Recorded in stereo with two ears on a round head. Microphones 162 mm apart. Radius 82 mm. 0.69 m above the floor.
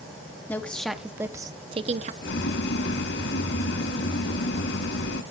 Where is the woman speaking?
10° left (ahead or behind), 0.9 m; by 2.1 s 40° right (ahead or behind), 0.9 m.